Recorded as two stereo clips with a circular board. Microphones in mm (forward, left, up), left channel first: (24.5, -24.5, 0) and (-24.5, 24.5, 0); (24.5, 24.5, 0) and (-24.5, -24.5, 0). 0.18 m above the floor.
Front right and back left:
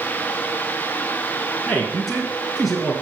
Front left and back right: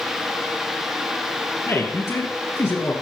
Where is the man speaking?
40° left, 2.0 m.